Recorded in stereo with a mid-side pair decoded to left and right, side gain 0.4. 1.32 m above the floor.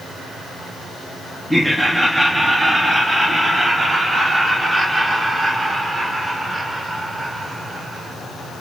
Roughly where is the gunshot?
I don't hear a gunshot.